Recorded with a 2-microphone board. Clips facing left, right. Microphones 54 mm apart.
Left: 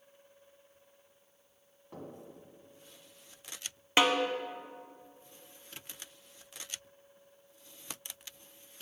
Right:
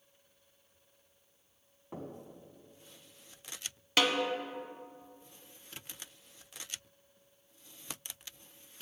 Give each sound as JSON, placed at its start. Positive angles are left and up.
{"t": 1.9, "sound": "knocking", "side_deg": -25, "distance_m": 1.4}
{"t": 4.0, "sound": "a snare drum", "side_deg": 25, "distance_m": 0.8}